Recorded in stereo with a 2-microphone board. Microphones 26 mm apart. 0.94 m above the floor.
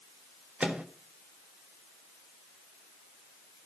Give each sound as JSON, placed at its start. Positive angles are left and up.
{"t": 0.6, "sound": "a microwave", "side_deg": -60, "distance_m": 1.5}